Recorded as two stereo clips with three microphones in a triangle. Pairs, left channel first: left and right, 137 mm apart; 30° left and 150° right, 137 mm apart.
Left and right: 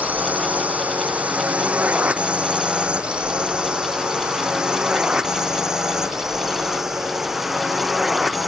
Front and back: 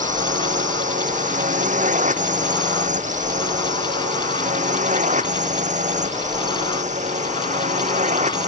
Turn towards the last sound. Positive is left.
turn(degrees=180)